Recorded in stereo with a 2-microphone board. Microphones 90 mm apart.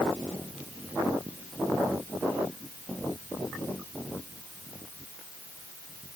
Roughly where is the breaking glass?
I don't hear breaking glass.